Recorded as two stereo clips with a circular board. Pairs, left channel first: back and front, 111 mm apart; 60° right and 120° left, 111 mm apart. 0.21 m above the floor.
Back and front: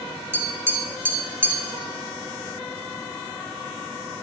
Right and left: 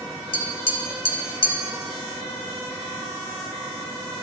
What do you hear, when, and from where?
0.3 s tapping: 65° right, 1.0 m